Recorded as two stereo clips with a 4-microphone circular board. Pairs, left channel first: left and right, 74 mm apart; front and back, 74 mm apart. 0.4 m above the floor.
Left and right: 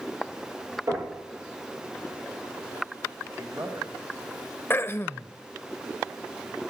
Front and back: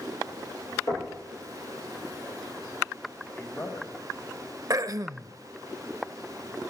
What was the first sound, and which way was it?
Knocking, 45° right.